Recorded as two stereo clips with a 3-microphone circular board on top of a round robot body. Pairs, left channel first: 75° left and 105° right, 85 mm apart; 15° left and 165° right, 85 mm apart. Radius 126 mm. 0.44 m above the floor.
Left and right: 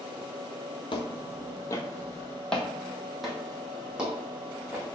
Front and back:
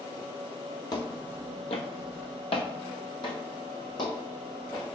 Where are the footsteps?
55° left, 0.8 m; by 4.9 s 30° right, 2 m.